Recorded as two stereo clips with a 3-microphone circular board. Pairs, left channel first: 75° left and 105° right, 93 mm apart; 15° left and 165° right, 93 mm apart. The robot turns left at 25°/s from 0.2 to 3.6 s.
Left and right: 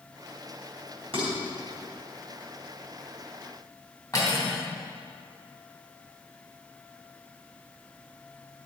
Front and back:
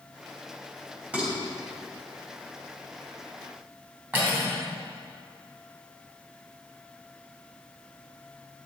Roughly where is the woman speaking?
I don't hear a woman speaking.